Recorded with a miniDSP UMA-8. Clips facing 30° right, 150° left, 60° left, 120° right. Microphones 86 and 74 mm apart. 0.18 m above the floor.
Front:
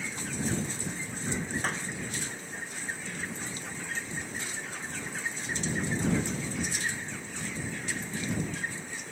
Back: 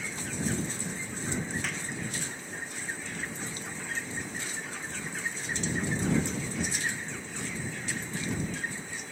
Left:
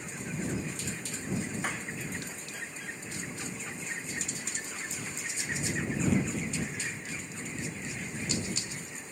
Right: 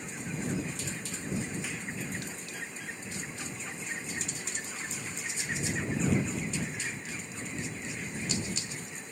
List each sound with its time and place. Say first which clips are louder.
1.6 s a clap: front 3 dB, left 4 dB; 20° left